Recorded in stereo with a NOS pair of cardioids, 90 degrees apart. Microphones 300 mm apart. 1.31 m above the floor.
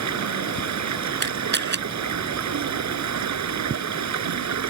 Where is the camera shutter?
35° right.